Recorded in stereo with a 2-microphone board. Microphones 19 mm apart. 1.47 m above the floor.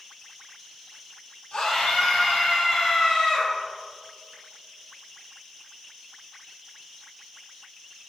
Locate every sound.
1.5 s a scream: 85° left, 3.5 m; by 3.5 s 60° left (ahead or behind), 4 m